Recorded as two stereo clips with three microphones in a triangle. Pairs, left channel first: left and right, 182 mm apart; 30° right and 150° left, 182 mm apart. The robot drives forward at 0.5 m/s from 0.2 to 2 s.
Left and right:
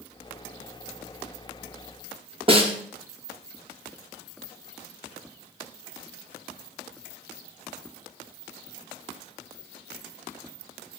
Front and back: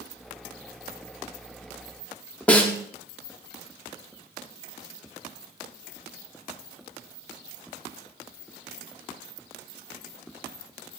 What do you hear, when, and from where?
2.5 s a snare drum: 110° right, 0.5 m